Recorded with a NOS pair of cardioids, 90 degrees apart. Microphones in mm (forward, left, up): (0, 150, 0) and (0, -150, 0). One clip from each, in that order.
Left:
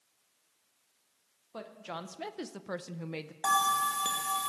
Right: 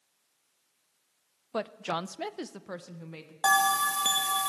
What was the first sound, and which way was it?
A woman speaking, 60° right.